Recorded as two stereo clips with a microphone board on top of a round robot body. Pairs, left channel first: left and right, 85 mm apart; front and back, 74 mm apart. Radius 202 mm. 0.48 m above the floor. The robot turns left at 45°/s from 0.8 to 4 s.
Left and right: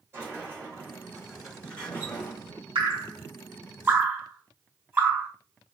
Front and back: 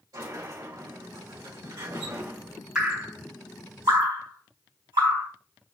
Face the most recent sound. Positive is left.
turn(degrees=-155)